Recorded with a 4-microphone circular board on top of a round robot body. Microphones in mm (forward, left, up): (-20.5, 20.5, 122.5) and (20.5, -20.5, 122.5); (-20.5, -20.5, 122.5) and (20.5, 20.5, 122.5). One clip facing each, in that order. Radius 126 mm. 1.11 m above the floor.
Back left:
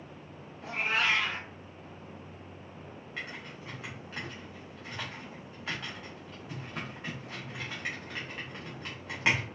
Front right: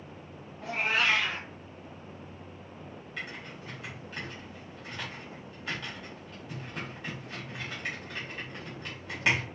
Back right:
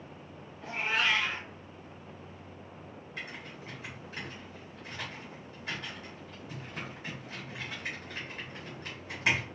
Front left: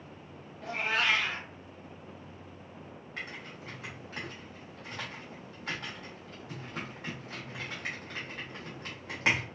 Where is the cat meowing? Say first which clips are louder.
Front right 2 dB, even; 5° left, 1.0 m.